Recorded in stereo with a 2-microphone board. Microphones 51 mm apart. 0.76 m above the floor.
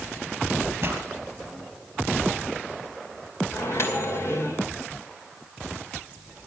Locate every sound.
0.8 s a pop: 35° right (ahead or behind), 4 m
3.5 s a microwave: 55° left (ahead or behind), 3 m